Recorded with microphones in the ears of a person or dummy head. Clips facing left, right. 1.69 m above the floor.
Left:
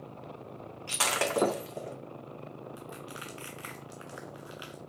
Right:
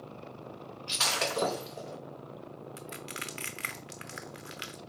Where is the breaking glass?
55° left (ahead or behind), 1.9 m.